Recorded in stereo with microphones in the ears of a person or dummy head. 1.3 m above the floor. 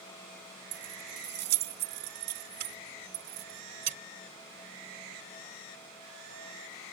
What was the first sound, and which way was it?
Keys jangling, 60° right (ahead or behind).